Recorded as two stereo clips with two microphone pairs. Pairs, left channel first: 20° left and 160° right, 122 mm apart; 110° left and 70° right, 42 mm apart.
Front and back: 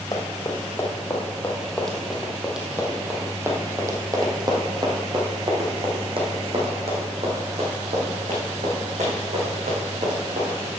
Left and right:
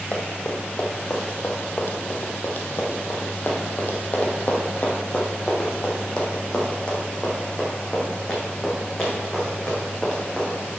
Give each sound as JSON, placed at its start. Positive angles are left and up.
{"t": 0.1, "sound": "running footsteps", "azimuth_deg": 70, "distance_m": 2.0}